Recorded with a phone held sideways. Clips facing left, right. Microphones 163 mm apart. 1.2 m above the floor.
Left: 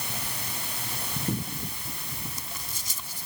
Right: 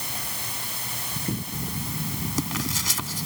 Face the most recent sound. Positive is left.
turn(degrees=-85)